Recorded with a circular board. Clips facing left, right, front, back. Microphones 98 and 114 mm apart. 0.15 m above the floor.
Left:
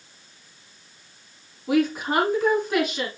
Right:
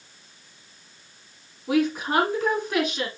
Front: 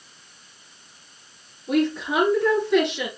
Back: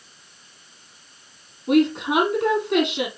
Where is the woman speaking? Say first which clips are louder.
Left 1 dB, back 4 dB; 175° left, 5 m.